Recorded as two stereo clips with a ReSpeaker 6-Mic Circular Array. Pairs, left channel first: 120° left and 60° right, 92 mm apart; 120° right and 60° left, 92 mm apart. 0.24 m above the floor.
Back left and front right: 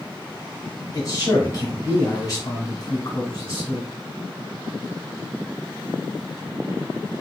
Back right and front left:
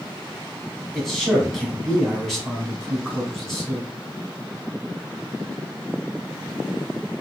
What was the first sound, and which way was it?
A man speaking, 155° left.